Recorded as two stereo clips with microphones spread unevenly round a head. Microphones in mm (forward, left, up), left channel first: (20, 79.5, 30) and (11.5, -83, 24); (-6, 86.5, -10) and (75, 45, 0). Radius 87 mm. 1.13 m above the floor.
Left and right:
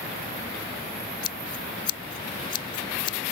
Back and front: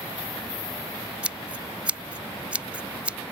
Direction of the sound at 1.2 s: 35° left.